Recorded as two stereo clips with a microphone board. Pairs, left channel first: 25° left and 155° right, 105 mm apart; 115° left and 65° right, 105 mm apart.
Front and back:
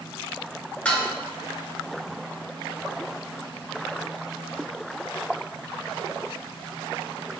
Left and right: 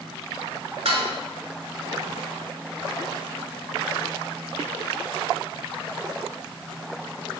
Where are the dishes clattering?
55° right, 1.5 m.